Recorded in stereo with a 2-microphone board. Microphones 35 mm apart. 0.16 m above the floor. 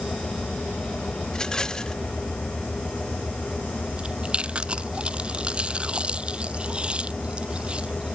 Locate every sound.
1.3 s a rattle: 20° left (ahead or behind)
4.0 s chewing: 30° right (ahead or behind)